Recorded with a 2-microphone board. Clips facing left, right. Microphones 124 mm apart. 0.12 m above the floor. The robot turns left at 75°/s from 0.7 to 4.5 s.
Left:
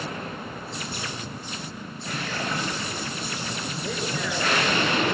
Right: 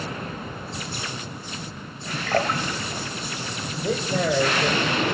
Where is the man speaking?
10° right, 4.5 m; by 5.0 s 60° right, 4.5 m.